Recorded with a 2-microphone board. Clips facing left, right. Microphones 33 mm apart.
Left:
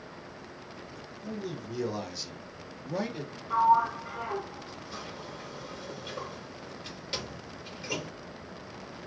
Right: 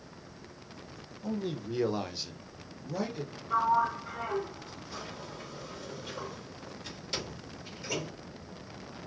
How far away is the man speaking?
About 0.8 m.